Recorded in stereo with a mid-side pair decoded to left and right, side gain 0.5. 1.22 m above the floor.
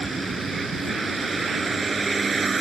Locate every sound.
0.0 s a vehicle: 30° right